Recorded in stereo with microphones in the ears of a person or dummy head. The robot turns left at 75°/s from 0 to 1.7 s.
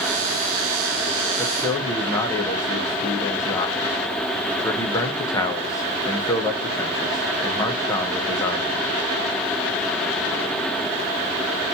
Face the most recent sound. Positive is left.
turn(degrees=15)  # may be behind; listen again after turning